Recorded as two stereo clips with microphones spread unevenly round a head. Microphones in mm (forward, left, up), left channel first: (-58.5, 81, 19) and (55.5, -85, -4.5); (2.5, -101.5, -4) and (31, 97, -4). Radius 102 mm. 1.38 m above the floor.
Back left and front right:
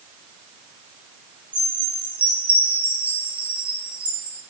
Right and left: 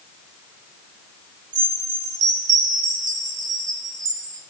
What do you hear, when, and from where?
1.5 s a chime: 30° left, 7 m